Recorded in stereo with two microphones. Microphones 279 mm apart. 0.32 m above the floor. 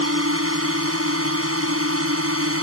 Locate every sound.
0.0 s a drone: 55° right (ahead or behind)